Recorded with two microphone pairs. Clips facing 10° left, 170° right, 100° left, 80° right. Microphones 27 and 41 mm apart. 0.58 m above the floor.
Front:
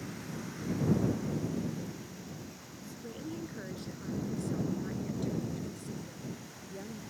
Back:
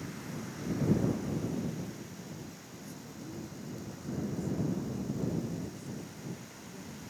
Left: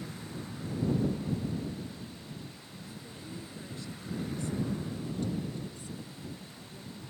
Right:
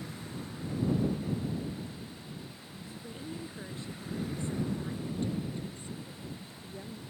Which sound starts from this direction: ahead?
A woman speaking, at 3.0 s.